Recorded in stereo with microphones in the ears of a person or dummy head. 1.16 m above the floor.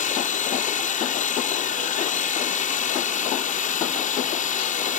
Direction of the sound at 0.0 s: 50° left (ahead or behind).